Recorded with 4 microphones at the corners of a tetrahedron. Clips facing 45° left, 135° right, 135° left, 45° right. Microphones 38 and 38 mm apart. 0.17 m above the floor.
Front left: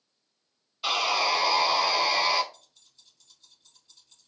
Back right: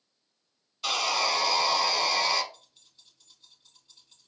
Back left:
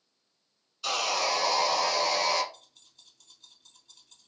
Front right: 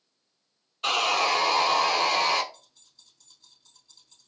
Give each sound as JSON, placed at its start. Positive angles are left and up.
{"t": 0.8, "sound": "sawing", "azimuth_deg": -25, "distance_m": 0.5}
{"t": 2.5, "sound": "keys jangling", "azimuth_deg": 155, "distance_m": 2.5}